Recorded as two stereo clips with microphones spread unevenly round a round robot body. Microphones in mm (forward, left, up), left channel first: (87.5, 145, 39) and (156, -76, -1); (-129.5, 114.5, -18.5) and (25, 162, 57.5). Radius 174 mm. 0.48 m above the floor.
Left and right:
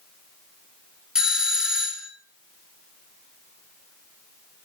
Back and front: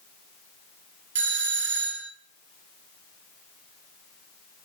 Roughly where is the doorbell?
Ahead.